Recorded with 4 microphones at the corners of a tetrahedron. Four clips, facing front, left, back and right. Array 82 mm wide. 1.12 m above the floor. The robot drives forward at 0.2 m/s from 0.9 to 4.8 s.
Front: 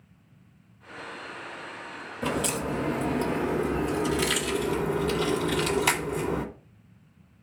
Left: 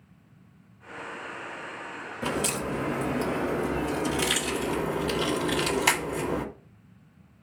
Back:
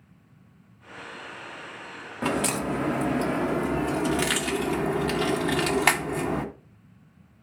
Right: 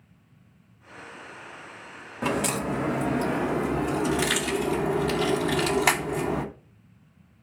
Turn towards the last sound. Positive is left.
turn(degrees=-155)